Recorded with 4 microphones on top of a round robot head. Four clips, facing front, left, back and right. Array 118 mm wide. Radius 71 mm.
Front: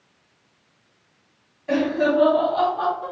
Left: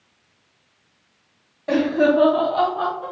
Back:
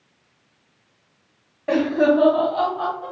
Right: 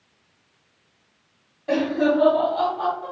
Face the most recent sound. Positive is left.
turn(degrees=50)